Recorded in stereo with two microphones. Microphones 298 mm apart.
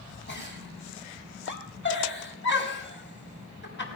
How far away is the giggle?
About 4.5 m.